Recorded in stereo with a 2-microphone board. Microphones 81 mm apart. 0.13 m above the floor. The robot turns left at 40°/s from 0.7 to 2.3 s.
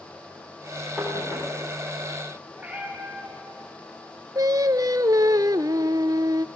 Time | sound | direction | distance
1.0 | knocking | 5° right (ahead or behind) | 8 m
2.6 | a cat meowing | 15° right (ahead or behind) | 8.5 m
4.3 | singing | 50° right (ahead or behind) | 0.6 m